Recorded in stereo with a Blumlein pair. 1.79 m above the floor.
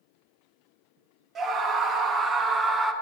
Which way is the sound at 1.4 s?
20° right.